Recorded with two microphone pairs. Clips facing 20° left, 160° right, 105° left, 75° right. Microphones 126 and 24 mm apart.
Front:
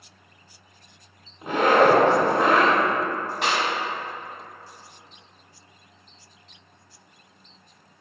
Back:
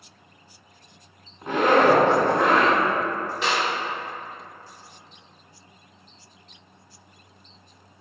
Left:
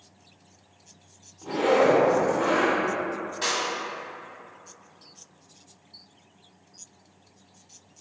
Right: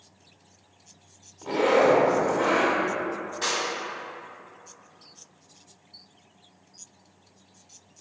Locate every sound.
1.4 s a zipper: 50° right, 1.3 m
3.4 s a clap: 25° left, 1.6 m